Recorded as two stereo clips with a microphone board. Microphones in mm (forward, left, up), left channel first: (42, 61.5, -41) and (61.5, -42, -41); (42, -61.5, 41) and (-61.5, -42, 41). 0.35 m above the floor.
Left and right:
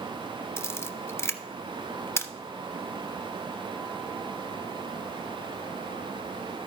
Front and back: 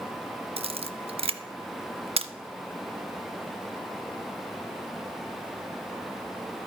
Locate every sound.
0.6 s a camera shutter: 160° left, 0.5 m